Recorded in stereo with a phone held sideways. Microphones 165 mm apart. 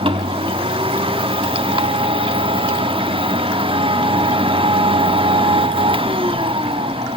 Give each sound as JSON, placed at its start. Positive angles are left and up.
{"t": 0.0, "sound": "a machine running", "side_deg": -35, "distance_m": 1.3}